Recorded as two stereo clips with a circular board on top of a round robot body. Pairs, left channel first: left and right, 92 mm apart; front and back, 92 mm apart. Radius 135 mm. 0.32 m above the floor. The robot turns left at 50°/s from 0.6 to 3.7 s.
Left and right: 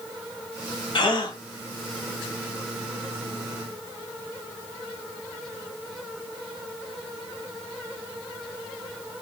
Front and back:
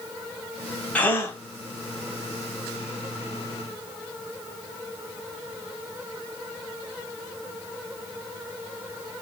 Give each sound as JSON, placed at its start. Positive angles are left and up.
{"t": 0.9, "sound": "a gasp", "azimuth_deg": 75, "distance_m": 1.7}